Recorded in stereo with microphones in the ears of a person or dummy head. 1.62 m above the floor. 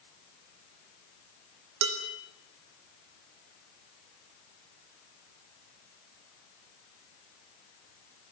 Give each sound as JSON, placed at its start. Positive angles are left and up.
{"t": 1.8, "sound": "dishes clattering", "side_deg": -70, "distance_m": 3.5}